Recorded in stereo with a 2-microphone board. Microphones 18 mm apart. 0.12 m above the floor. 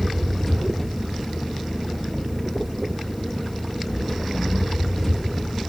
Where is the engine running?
Centre (ahead or behind), 8 m.